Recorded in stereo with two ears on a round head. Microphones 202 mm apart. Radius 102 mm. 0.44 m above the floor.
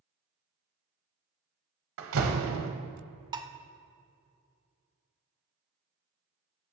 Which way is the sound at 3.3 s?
20° right (ahead or behind).